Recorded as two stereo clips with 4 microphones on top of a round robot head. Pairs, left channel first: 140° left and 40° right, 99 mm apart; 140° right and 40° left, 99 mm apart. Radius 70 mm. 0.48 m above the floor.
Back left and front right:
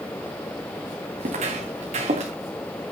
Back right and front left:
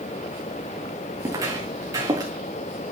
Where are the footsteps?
20° right, 2 m; by 2.3 s 15° right, 2.5 m.